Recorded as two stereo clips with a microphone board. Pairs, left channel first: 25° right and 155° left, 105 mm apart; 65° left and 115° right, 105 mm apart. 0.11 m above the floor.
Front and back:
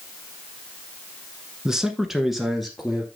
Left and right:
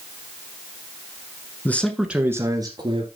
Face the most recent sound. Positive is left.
turn(degrees=-110)